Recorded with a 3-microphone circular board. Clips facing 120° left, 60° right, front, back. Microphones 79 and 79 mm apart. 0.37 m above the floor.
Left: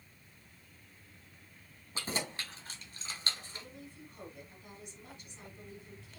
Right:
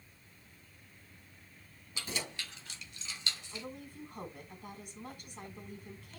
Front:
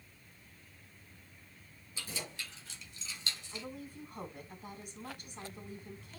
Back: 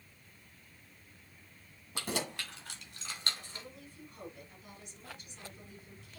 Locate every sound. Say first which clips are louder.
1.9 s keys jangling: left 3 dB, back 7 dB; 170° left, 2 m; by 3.7 s 145° left, 1.0 m
3.5 s a woman speaking: right 4 dB, front 5 dB; 30° right, 3.5 m